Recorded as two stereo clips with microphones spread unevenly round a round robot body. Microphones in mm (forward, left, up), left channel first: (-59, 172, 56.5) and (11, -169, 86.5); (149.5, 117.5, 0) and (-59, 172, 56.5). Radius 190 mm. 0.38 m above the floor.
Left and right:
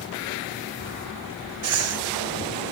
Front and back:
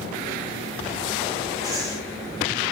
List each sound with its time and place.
1.6 s breathing: 110° right, 0.6 m